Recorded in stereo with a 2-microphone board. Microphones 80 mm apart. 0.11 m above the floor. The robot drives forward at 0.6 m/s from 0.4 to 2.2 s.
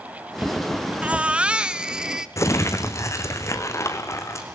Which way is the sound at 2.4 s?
35° left (ahead or behind).